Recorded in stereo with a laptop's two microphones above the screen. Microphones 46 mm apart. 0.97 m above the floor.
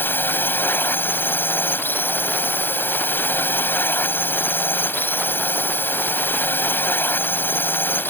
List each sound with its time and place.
0.0 s a drone: 50° left (ahead or behind)